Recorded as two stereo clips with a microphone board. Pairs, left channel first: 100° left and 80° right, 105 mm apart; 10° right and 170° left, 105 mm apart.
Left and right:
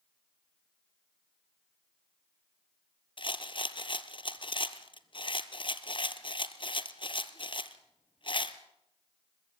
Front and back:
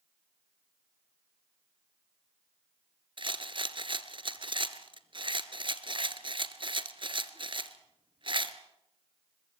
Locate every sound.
3.2 s a rattle: 135° left, 1.1 m